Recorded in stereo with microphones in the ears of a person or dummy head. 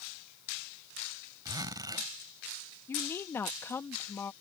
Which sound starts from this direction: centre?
A woman speaking, at 2.9 s.